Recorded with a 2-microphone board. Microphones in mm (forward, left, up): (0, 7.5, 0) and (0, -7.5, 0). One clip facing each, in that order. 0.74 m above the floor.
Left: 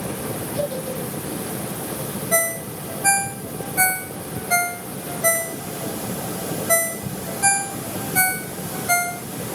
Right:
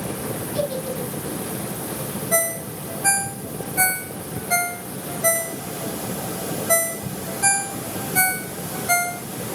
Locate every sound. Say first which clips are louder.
0.5 s a giggle: right 1 dB; 55° right (ahead or behind), 6.5 m
2.3 s a ringtone: left 1 dB; 5° left (ahead or behind), 0.9 m